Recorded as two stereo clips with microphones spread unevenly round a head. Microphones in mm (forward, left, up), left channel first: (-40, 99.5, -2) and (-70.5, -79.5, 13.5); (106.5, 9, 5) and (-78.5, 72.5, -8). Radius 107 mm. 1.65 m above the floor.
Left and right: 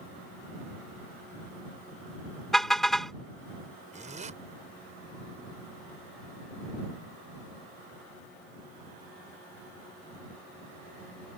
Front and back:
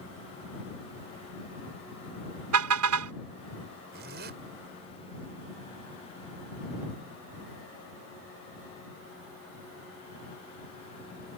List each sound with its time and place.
2.5 s a car horn: 170° left
3.9 s a zipper: 150° right